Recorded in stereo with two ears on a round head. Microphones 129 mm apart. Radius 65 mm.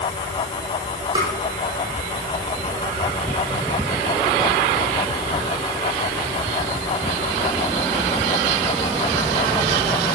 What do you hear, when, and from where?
1.1 s tapping: 30° right (ahead or behind), 4 m